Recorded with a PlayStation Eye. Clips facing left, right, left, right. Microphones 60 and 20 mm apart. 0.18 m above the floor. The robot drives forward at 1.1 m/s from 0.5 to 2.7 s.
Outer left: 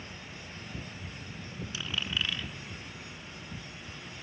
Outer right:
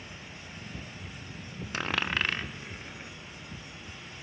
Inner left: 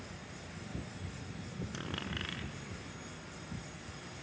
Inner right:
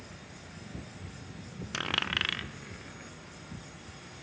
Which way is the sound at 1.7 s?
55° right (ahead or behind).